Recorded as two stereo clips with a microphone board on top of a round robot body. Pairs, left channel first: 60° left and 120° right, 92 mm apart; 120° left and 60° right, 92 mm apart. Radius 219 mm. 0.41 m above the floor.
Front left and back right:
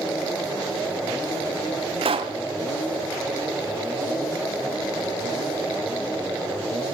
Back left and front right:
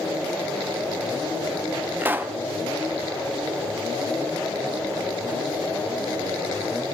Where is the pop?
130° right, 0.8 m.